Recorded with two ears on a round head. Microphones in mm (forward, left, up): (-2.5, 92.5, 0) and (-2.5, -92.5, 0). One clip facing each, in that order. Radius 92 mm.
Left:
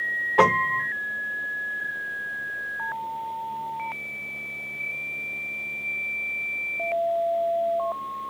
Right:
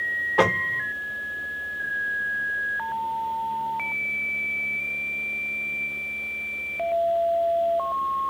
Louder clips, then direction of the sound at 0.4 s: Left 1 dB; centre (ahead or behind).